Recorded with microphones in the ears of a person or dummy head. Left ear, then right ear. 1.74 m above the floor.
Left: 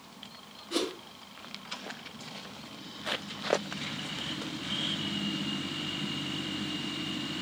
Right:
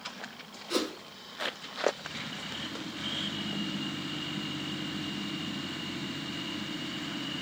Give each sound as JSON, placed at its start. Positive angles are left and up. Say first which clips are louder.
{"t": 0.7, "sound": "a whoosh", "louder": "right 1 dB", "side_deg": -75, "distance_m": 2.5}